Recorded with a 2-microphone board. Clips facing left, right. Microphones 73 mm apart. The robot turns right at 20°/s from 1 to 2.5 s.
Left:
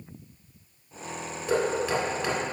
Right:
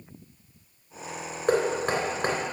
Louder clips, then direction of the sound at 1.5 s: Right 1 dB; 60° right (ahead or behind).